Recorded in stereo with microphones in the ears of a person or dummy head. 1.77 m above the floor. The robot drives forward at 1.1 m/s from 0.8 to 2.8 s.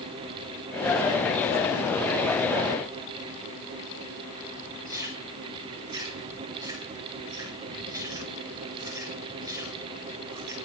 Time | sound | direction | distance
4.8 | chewing | 20° right (ahead or behind) | 5.5 m